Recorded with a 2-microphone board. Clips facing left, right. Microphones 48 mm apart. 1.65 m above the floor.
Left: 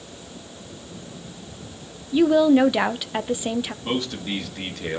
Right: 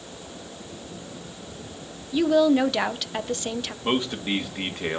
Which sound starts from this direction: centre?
A woman speaking, at 2.1 s.